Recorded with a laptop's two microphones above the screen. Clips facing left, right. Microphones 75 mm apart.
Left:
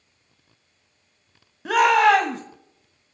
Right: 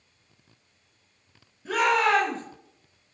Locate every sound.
1.6 s a shout: 70° left (ahead or behind), 0.9 m